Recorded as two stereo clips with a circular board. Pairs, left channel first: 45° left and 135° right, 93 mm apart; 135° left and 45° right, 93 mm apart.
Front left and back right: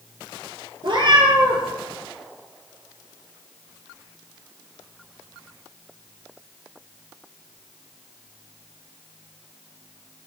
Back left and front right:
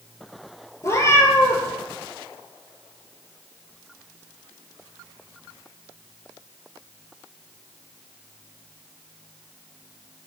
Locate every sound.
0.8 s a cat meowing: 165° right, 0.7 m